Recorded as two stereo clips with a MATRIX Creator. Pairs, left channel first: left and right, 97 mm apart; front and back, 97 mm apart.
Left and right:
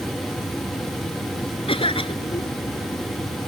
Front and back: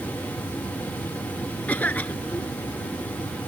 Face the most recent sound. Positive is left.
turn(degrees=75)